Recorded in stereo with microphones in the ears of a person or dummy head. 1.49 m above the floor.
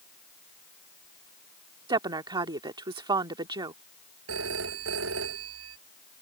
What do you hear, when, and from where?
1.9 s a woman speaking: 25° right (ahead or behind)
4.3 s a phone ringing: 85° right